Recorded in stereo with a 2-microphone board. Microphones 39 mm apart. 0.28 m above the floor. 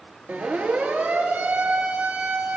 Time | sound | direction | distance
0.3 | a siren | 45° right (ahead or behind) | 5 m